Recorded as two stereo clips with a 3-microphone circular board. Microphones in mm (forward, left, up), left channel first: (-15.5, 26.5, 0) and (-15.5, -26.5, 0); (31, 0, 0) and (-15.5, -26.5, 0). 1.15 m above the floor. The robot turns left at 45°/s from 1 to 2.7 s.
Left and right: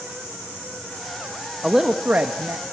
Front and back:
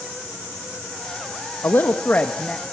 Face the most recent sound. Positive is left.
turn(degrees=-55)